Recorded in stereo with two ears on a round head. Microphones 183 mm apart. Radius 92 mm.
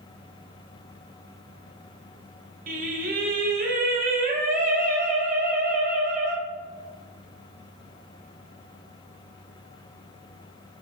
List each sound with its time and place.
2.7 s singing: 40° right (ahead or behind), 1.5 m